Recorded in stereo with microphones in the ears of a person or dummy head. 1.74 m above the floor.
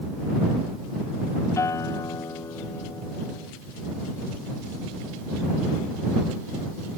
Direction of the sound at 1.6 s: 20° left (ahead or behind).